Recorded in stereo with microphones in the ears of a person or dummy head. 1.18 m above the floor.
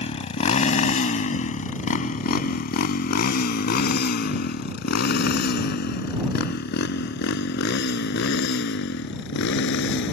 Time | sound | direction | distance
0.0 | a motorcycle | 45° left (ahead or behind) | ?